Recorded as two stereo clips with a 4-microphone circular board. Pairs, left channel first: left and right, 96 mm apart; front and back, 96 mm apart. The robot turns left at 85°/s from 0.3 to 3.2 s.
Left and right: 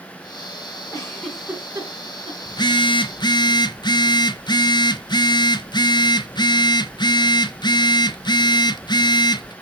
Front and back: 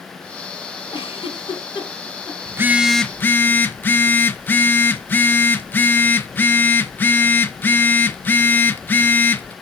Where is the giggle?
35° left, 4.5 m; by 2.4 s 90° right, 4.5 m.